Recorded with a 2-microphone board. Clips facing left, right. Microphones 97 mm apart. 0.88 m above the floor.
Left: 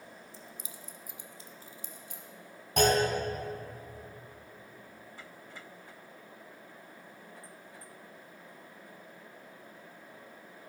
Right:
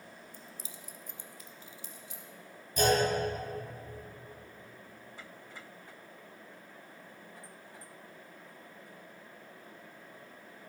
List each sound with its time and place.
0.3 s keys jangling: 50° right (ahead or behind), 0.6 m; by 2.2 s 55° left (ahead or behind), 1.2 m
2.8 s a clunk: 80° left, 3 m